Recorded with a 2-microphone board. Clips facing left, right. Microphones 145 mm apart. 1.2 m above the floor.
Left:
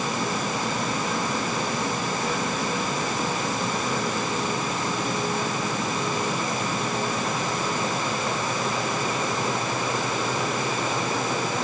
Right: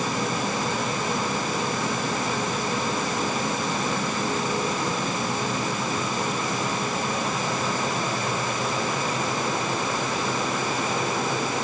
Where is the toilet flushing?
I don't hear a toilet flushing.